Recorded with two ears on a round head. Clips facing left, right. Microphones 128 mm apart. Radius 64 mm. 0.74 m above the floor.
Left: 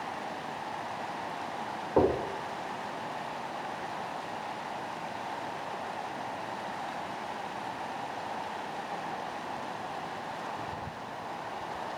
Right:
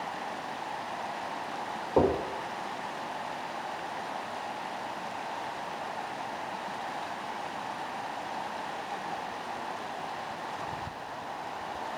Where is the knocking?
5° right (ahead or behind), 2.5 m.